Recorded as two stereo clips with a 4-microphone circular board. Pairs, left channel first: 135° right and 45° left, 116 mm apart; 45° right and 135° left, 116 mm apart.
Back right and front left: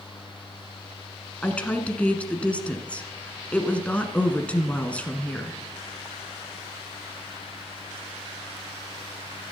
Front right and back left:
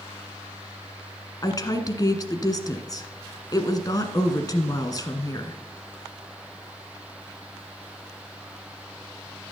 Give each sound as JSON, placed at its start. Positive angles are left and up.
{"t": 1.4, "sound": "a woman speaking", "azimuth_deg": -65, "distance_m": 1.4}